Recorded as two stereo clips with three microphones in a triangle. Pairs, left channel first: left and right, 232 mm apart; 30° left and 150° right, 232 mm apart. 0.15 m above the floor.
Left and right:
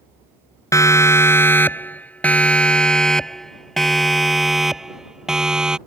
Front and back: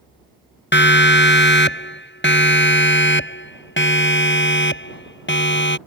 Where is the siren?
15° left; by 5.8 s 5° right.